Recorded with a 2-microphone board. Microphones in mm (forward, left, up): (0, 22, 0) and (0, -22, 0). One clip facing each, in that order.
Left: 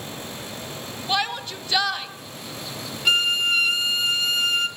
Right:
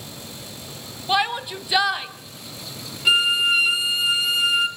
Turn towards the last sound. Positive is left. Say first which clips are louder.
# right 2 dB
turn(degrees=-10)  # may be behind; listen again after turning